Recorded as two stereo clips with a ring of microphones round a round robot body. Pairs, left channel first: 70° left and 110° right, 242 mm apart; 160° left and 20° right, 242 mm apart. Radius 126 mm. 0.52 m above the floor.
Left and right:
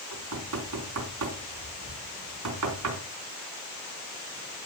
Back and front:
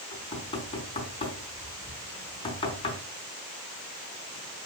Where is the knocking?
135° right, 4 m.